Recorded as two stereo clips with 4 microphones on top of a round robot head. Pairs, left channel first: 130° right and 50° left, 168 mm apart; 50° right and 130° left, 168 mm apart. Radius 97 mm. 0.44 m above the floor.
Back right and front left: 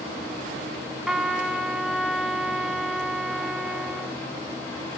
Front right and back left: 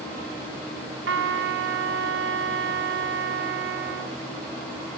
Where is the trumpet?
140° left, 1.7 m.